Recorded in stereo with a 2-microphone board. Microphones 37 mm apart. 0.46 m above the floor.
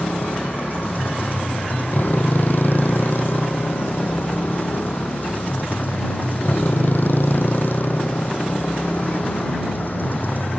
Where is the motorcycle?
65° left (ahead or behind).